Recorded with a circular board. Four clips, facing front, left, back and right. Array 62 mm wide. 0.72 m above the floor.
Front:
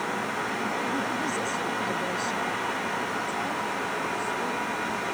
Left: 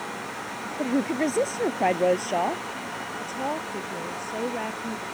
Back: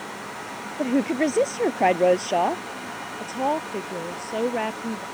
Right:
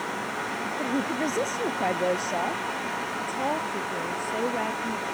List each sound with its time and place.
0.8 s a woman speaking: 170° left
3.2 s a woman speaking: 170° right